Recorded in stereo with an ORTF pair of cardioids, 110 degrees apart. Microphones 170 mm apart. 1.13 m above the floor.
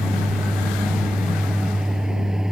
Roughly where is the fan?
Ahead.